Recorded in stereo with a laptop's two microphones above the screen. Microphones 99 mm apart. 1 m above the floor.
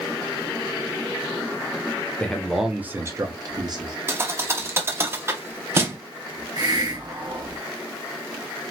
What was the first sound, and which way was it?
A man speaking, 10° left (ahead or behind).